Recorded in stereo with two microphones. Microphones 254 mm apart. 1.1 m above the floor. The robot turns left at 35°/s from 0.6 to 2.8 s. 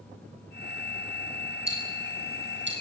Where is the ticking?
80° right, 9 m; by 2.7 s 45° right (ahead or behind), 9 m.